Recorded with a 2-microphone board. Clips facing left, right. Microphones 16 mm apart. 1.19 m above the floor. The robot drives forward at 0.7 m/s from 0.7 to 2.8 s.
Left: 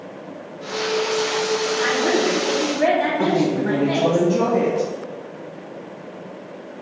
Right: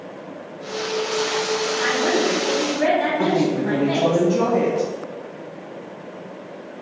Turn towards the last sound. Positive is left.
turn(degrees=-15)  # may be behind; listen again after turning